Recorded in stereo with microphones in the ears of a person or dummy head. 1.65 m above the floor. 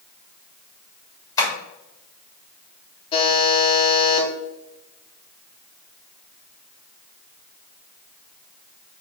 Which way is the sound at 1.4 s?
25° left (ahead or behind).